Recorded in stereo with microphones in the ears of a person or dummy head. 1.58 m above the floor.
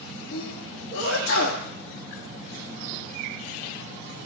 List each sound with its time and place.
0.3 s a sneeze: 75° left (ahead or behind), 1.3 m